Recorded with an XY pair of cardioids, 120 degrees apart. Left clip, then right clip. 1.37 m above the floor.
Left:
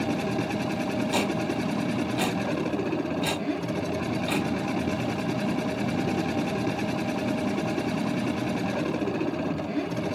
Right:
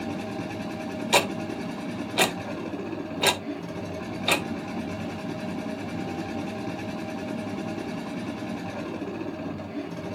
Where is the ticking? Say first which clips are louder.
Right 7 dB; 55° right, 1.2 m.